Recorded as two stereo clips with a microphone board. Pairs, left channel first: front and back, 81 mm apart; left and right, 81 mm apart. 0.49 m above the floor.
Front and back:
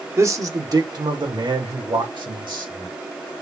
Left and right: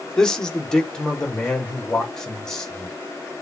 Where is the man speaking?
165° left, 0.8 m; by 3.0 s 170° left, 2 m.